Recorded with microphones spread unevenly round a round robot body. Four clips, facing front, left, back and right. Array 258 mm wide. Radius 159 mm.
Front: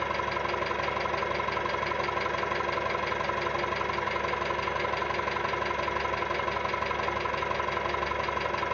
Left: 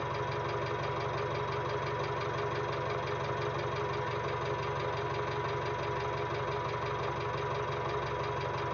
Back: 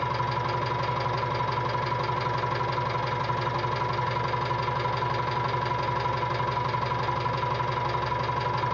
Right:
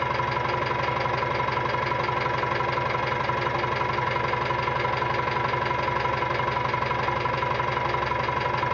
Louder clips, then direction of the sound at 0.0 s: Right 9 dB, back 2 dB; 90° right.